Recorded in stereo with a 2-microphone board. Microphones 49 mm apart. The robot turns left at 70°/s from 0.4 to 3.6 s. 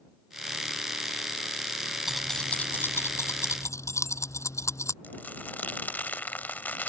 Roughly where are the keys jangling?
Centre.